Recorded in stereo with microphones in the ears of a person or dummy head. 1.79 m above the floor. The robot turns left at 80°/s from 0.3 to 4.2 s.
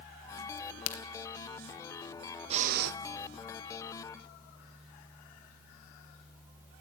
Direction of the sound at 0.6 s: 60° left (ahead or behind).